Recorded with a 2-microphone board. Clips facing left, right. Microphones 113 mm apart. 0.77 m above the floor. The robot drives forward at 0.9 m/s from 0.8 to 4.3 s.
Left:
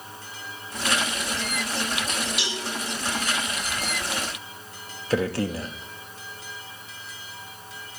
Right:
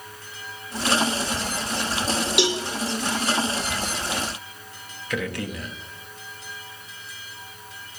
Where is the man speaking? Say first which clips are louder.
Left 5 dB; 30° left (ahead or behind), 0.9 m.